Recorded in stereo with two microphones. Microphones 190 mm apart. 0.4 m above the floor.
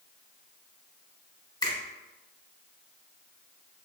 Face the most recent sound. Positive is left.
turn(degrees=20)  # may be behind; listen again after turning